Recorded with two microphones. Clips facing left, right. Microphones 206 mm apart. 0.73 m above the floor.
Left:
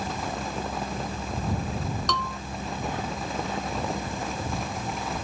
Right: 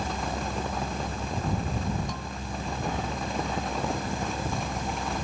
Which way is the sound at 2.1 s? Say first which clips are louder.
Left 4 dB; 85° left.